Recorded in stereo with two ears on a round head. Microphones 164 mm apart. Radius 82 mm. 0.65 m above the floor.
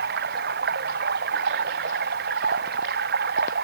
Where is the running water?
60° right (ahead or behind).